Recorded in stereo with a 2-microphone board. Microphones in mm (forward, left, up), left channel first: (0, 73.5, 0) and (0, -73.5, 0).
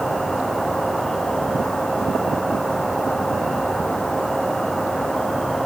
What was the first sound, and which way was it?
An insect, centre (ahead or behind).